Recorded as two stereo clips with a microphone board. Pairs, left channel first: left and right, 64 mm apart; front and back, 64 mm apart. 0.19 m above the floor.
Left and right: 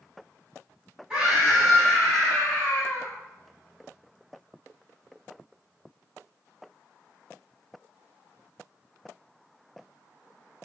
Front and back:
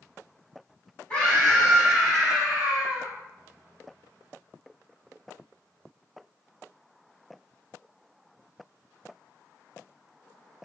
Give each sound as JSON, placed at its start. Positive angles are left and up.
{"t": 1.1, "sound": "a scream", "azimuth_deg": -30, "distance_m": 1.2}